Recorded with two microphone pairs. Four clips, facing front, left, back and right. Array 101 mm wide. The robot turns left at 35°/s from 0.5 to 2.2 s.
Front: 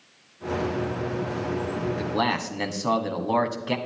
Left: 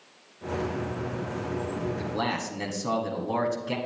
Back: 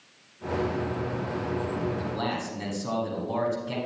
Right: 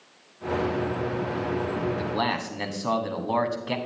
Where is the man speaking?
25° right, 1.4 m; by 3.8 s 35° right, 1.4 m.